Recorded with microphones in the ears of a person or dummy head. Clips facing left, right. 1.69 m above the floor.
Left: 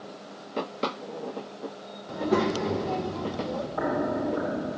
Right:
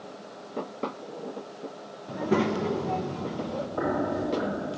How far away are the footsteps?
About 6.5 m.